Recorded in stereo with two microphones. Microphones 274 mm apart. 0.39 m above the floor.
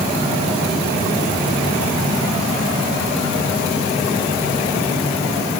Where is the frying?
I don't hear frying.